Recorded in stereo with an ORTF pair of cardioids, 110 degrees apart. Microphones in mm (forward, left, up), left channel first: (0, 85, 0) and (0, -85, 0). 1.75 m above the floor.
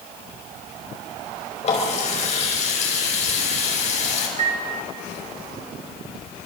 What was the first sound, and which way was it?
A running tap, 40° left.